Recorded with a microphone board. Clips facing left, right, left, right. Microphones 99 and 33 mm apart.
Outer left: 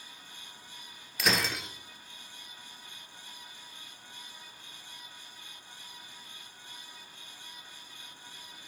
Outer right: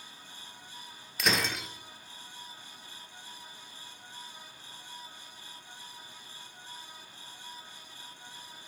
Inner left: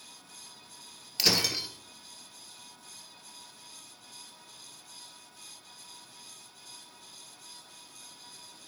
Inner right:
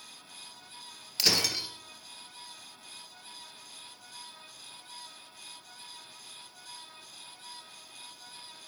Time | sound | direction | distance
1.2 | breaking glass | centre (ahead or behind) | 1.5 m